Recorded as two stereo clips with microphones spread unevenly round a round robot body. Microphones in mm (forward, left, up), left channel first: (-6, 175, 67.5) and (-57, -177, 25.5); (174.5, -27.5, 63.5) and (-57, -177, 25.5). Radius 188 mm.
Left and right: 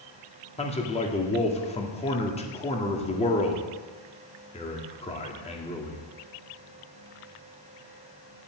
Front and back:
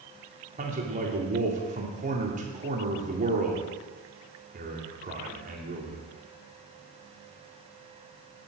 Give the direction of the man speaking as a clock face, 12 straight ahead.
7 o'clock.